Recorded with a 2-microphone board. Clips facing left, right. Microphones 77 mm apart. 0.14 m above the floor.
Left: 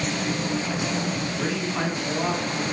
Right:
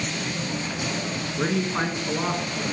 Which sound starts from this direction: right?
A man speaking, at 1.4 s.